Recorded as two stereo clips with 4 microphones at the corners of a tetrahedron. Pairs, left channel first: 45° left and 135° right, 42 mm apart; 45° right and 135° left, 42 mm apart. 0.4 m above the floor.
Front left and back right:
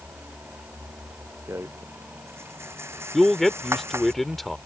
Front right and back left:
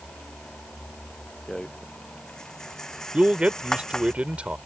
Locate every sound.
1.5 s a rattle: 125° right
3.1 s a man speaking: 125° left